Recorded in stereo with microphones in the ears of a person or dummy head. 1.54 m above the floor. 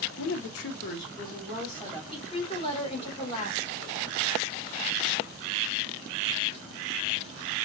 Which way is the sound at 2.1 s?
30° left (ahead or behind).